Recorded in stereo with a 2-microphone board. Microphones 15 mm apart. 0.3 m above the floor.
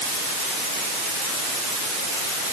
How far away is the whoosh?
I don't hear a whoosh.